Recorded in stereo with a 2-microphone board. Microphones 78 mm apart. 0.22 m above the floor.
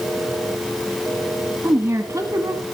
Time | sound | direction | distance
1.6 | a woman speaking | 35° right (ahead or behind) | 1.6 m